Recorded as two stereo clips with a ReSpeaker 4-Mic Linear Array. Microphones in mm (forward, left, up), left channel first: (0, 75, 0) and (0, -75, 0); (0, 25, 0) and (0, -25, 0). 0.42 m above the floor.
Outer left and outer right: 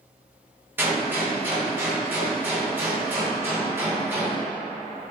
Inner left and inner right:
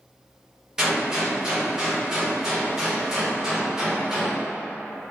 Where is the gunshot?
15° right (ahead or behind), 0.9 m.